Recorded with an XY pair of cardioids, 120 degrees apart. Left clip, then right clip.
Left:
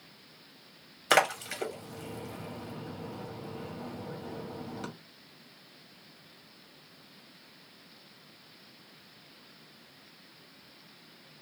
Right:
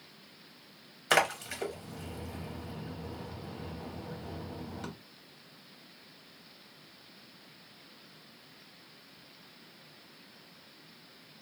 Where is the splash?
25° left, 1.2 m.